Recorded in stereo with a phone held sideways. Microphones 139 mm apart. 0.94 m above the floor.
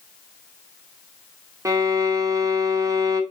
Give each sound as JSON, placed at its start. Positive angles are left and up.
{"t": 1.6, "sound": "a violin", "side_deg": -25, "distance_m": 0.5}